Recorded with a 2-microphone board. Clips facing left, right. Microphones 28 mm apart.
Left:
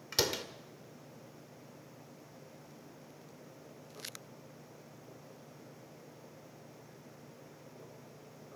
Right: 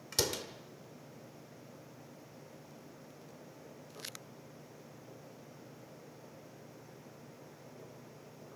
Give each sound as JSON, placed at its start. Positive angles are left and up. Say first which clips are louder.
{"t": 0.1, "sound": "a door slam", "louder": "left 2 dB", "side_deg": 15, "distance_m": 1.5}